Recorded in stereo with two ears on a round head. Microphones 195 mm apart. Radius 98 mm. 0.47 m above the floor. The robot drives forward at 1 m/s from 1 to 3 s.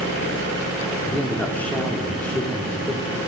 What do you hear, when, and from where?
1.1 s a man speaking: 5° left (ahead or behind), 1.3 m